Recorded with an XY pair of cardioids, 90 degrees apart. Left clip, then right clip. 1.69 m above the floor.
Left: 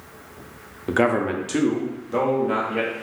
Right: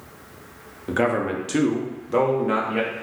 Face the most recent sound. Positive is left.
turn(degrees=-45)